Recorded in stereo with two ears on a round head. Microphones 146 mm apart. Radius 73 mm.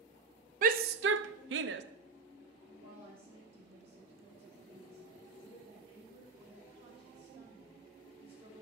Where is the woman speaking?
35° right (ahead or behind), 1.7 m.